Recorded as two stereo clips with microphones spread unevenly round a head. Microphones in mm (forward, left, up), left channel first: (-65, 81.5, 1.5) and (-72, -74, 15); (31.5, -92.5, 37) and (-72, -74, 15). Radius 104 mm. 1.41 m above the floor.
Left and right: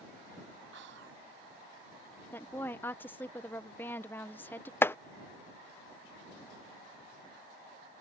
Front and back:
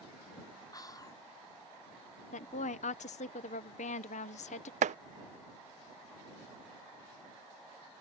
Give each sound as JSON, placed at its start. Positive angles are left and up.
{"t": 0.7, "sound": "whispering", "azimuth_deg": -70}
{"t": 2.3, "sound": "a woman speaking", "azimuth_deg": 10}
{"t": 4.8, "sound": "chopping", "azimuth_deg": 165}